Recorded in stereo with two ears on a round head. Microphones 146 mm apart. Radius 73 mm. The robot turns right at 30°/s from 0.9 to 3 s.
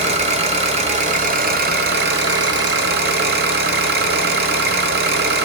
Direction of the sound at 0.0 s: 135° right.